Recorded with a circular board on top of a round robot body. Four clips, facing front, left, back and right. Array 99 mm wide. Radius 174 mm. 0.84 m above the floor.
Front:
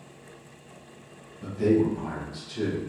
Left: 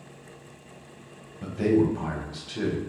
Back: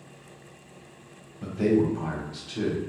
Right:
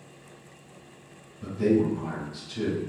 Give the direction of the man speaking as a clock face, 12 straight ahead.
8 o'clock.